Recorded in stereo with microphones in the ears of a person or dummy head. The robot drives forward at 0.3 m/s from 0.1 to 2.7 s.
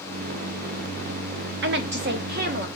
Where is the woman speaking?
55° right (ahead or behind), 0.5 m; by 2.7 s 40° right (ahead or behind), 0.7 m.